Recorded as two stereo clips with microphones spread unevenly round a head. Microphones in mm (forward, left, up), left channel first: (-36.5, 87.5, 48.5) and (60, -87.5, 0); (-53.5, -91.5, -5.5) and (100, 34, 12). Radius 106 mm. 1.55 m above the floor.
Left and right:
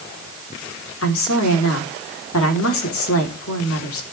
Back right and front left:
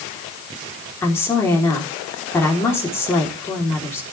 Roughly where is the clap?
I don't hear a clap.